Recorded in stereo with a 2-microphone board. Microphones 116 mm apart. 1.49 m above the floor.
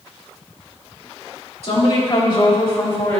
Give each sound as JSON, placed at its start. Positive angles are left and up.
{"t": 1.6, "sound": "a woman speaking", "side_deg": 60, "distance_m": 3.0}